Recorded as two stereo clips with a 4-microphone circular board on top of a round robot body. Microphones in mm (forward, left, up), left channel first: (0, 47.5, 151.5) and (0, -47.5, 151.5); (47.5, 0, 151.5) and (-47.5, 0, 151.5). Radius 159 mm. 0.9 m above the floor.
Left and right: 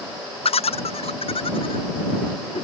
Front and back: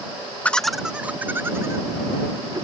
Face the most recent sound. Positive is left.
turn(degrees=125)